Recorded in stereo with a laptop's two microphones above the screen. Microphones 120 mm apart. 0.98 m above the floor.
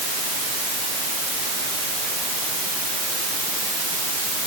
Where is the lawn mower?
I don't hear a lawn mower.